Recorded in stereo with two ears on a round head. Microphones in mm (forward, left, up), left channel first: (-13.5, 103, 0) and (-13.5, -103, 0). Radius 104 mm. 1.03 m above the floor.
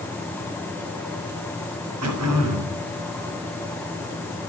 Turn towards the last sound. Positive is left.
turn(degrees=-80)